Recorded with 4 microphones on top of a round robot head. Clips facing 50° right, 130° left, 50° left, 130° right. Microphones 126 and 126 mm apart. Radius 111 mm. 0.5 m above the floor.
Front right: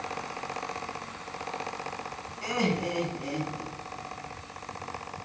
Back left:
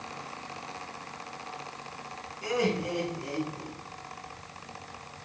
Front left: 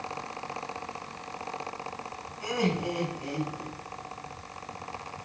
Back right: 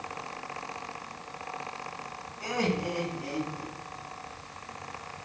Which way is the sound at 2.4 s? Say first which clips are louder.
Even, front left 1 dB; 25° right.